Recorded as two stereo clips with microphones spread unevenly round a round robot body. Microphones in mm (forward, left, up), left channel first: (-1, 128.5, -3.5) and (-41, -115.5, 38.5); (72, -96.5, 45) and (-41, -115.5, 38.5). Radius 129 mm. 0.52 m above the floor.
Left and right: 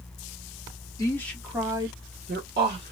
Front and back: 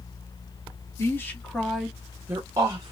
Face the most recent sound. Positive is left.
turn(degrees=-135)